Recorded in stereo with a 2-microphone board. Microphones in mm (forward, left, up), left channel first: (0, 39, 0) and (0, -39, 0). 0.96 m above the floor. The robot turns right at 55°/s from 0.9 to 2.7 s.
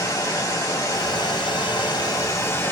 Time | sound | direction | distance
0.0 | running water | 55° left | 1.9 m